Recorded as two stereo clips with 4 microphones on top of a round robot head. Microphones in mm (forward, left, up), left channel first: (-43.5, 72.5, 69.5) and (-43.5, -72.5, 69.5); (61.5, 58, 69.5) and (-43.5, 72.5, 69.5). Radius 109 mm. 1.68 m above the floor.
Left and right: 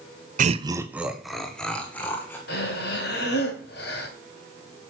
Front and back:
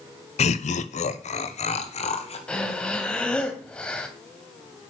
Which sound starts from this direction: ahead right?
Laughter, at 0.4 s.